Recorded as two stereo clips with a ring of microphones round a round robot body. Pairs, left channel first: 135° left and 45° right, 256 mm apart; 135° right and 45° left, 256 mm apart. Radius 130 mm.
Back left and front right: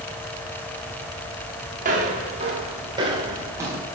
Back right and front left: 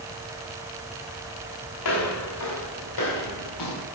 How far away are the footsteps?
About 4.5 m.